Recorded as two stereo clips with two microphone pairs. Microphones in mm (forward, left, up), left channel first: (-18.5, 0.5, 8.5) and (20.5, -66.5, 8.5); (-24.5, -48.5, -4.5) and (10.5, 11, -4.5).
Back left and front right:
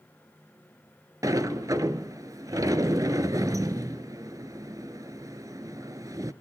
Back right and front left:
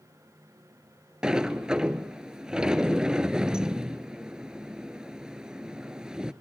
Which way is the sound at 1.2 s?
20° right.